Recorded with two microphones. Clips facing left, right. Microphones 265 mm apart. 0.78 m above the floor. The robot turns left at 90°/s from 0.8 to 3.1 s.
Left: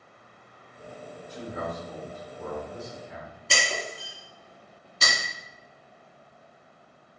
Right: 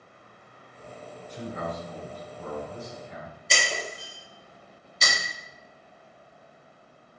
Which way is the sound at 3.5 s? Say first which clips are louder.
Even; 70° left (ahead or behind).